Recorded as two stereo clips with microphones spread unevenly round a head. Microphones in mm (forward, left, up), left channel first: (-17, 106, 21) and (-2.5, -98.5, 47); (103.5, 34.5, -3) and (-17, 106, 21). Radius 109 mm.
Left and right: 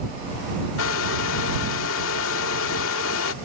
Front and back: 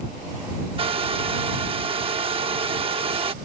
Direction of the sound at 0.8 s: 115° left.